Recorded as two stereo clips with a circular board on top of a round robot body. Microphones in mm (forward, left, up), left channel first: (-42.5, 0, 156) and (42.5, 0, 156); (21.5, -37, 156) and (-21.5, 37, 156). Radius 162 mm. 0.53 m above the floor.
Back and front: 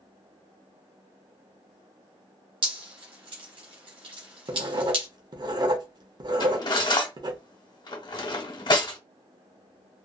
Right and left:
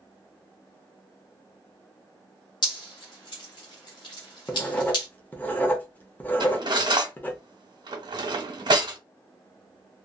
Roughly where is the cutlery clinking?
Behind left.